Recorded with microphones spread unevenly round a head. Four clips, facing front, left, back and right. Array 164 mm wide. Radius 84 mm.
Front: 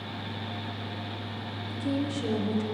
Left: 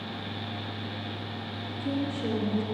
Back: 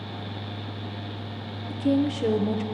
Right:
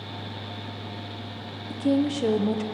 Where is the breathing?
No breathing in this recording.